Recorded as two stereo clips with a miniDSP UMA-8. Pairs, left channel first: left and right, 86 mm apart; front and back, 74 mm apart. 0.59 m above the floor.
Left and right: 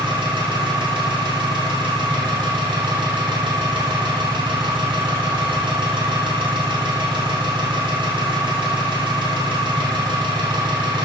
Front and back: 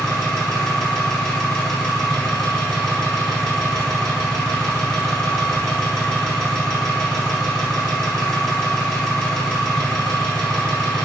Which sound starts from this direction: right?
An engine running, at 0.0 s.